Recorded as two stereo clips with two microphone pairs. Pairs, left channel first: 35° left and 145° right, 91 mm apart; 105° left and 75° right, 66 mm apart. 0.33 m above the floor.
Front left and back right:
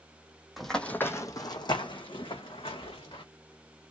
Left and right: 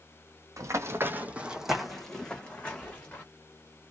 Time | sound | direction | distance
0.6 | running footsteps | 55° right | 0.6 m